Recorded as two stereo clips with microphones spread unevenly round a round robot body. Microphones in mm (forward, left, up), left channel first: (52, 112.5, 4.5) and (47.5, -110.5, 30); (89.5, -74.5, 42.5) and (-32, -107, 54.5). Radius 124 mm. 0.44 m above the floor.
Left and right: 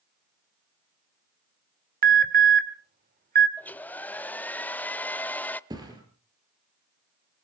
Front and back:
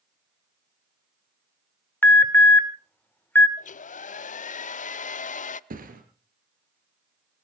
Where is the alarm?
50° right, 2.0 m.